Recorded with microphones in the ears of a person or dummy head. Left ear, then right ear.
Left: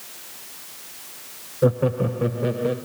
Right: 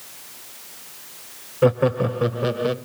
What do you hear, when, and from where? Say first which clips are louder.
1.6 s laughter: right 3 dB; 30° right (ahead or behind), 0.5 m; by 2.8 s 50° right (ahead or behind), 2.0 m